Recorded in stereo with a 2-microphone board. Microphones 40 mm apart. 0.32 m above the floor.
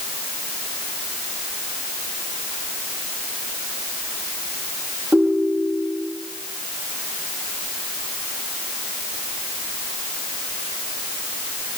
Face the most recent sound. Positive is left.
turn(degrees=-60)  # may be behind; listen again after turning